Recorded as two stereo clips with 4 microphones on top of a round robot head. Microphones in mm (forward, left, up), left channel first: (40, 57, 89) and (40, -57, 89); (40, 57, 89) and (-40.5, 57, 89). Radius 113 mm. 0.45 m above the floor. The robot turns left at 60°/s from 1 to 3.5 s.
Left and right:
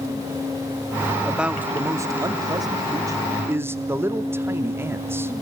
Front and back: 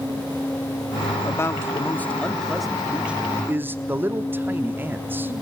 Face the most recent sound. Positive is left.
turn(degrees=-140)